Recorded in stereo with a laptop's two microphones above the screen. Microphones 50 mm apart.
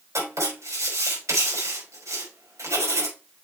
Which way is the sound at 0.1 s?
85° right.